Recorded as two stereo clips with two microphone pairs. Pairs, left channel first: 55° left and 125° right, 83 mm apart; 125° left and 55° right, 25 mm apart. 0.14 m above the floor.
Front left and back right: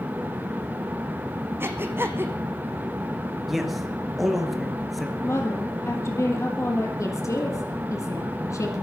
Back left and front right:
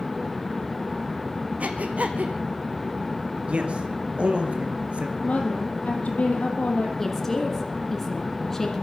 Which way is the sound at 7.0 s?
60° left.